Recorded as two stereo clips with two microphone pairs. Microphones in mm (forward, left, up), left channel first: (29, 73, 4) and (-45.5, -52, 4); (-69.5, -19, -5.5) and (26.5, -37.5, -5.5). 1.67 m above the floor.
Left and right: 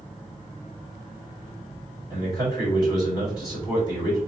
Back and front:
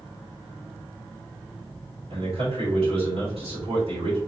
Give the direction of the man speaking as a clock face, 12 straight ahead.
12 o'clock.